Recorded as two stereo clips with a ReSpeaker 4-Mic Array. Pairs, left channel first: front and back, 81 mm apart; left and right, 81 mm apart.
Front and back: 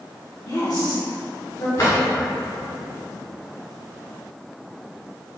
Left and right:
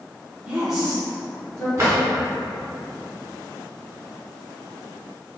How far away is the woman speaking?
About 0.8 m.